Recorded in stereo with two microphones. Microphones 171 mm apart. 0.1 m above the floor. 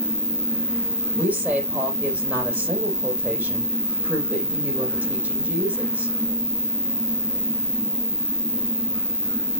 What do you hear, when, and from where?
0.0 s an insect: 55° left (ahead or behind), 0.7 m
1.2 s a woman speaking: 10° right (ahead or behind), 5 m